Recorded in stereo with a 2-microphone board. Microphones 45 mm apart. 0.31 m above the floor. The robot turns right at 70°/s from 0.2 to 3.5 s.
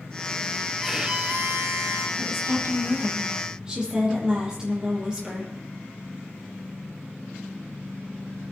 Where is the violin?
Straight behind, 1.2 m; by 2.1 s 90° right, 1.2 m.